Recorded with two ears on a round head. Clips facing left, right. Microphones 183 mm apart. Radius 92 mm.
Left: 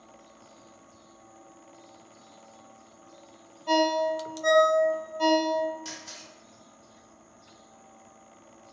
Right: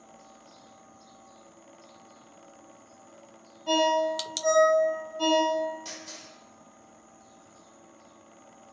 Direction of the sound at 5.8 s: 5° left (ahead or behind).